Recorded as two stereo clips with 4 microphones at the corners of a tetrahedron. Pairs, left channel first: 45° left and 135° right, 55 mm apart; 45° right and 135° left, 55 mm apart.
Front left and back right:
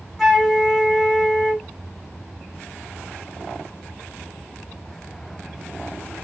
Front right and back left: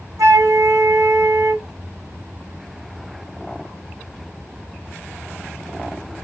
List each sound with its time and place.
0.2 s a flute: 140° left, 3 m